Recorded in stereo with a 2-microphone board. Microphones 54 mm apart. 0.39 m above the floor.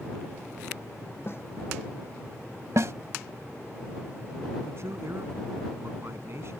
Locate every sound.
1.3 s a snare drum: 45° left (ahead or behind)
2.8 s a snare drum: 65° right (ahead or behind)
4.7 s a man speaking: 55° right (ahead or behind)